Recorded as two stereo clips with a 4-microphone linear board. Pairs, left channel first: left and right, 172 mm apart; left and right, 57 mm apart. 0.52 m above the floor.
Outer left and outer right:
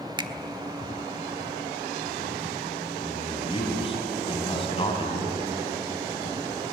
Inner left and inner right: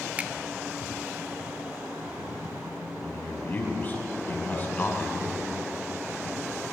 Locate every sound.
0.2 s a finger snap: 25° right (ahead or behind), 1.1 m
3.0 s a man speaking: 30° left (ahead or behind), 4.5 m